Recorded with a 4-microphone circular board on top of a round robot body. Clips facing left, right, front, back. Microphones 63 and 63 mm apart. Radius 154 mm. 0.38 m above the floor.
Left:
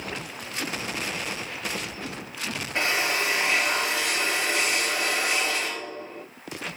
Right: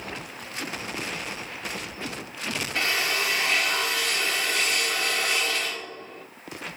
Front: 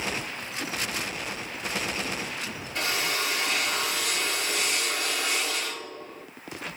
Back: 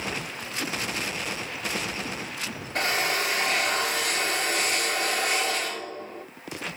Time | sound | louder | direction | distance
2.8 | a drill | left 2 dB, back 3 dB | 155° left | 3.5 m